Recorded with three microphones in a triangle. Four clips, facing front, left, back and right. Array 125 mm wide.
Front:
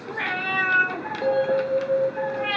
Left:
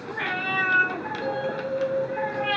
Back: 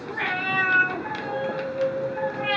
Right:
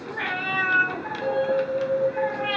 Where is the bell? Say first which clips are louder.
Right 7 dB, front 10 dB; 15° right, 4.5 m.